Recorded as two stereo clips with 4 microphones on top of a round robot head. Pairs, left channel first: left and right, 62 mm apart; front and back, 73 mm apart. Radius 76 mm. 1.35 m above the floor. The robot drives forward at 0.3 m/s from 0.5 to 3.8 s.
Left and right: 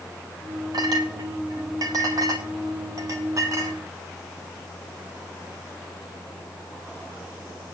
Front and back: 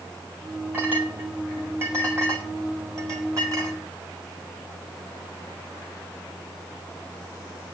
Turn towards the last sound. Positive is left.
turn(degrees=-130)